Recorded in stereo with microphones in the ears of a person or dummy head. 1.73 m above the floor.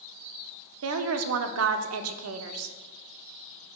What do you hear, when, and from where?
0.8 s a woman speaking: 75° right (ahead or behind), 0.6 m